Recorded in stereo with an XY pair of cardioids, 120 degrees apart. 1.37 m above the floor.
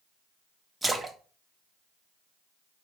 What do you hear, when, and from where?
0.8 s a splash: 15° right, 0.7 m